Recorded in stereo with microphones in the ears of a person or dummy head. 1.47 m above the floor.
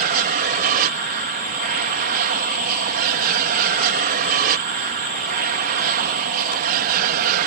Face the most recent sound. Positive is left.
turn(degrees=-50)  # may be behind; listen again after turning